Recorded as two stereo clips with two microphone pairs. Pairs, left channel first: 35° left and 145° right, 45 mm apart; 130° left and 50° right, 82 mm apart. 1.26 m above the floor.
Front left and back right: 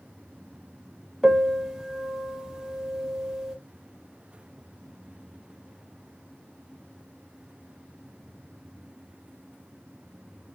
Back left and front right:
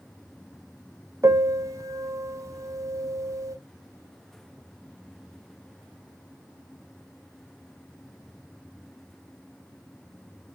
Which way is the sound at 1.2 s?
65° right.